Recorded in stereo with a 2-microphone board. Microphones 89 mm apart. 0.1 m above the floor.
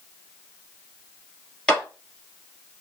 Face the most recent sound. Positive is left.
turn(degrees=10)  # may be behind; listen again after turning